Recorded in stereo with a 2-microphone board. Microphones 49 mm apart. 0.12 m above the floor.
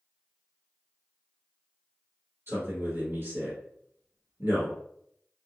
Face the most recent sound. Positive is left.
turn(degrees=-40)  # may be behind; listen again after turning